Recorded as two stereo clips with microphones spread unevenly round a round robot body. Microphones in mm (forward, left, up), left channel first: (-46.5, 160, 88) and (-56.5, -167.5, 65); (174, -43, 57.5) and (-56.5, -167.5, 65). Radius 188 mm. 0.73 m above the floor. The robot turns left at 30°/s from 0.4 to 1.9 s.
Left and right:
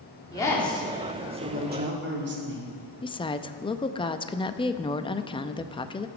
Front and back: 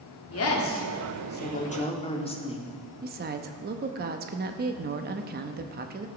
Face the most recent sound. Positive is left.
turn(degrees=165)